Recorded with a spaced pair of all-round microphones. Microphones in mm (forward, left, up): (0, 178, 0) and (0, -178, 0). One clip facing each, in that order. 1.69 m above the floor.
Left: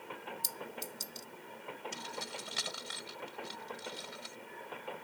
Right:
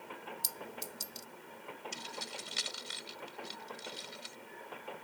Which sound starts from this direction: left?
Keys jangling, at 1.9 s.